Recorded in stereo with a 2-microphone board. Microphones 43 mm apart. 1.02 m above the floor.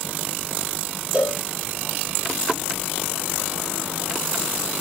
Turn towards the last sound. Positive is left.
turn(degrees=-15)  # may be behind; listen again after turning